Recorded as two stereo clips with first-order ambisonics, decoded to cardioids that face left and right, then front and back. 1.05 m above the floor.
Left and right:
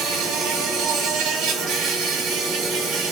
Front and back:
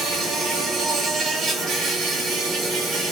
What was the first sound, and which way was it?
An insect, 110° right.